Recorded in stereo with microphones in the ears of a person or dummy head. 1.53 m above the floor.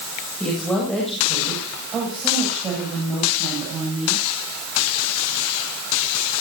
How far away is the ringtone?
I don't hear a ringtone.